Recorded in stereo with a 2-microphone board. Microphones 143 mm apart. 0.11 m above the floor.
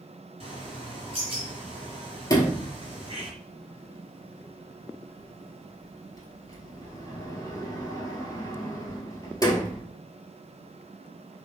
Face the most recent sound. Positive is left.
turn(degrees=25)  # may be behind; listen again after turning